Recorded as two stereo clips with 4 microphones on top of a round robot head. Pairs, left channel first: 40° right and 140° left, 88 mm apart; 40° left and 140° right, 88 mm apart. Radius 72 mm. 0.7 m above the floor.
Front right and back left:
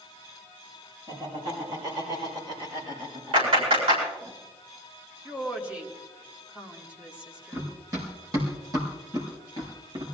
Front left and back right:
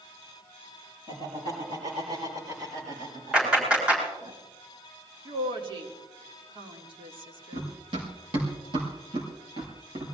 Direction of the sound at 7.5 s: 160° right.